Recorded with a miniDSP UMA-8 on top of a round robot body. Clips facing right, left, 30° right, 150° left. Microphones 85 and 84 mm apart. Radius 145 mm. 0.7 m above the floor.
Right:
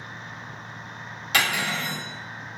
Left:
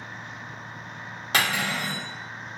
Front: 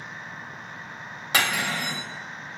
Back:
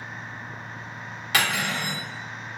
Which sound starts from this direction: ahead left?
Cutlery clinking, at 1.3 s.